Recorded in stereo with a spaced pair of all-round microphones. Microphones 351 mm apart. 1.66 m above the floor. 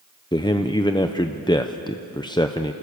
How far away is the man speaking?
About 0.7 m.